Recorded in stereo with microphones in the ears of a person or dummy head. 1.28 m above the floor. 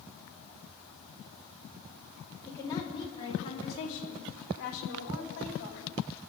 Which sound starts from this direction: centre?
A woman speaking, at 2.5 s.